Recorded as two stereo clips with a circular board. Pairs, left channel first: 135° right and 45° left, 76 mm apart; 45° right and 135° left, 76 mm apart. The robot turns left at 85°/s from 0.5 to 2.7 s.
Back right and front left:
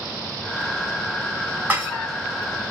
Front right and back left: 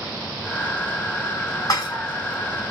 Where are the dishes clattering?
20° right, 1.5 m; by 2.0 s 45° right, 1.5 m.